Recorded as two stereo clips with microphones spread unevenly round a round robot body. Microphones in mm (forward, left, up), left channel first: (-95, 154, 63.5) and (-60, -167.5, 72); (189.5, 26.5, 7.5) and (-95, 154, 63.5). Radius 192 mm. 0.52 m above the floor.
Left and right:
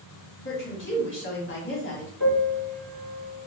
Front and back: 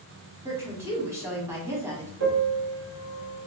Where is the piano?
120° left, 1.9 m.